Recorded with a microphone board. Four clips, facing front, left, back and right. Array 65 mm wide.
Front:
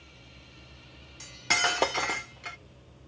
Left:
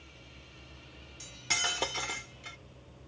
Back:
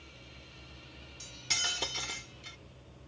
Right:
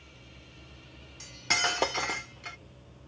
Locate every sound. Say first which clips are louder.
1.2 s cutlery clinking: right 5 dB, front 11 dB; 25° right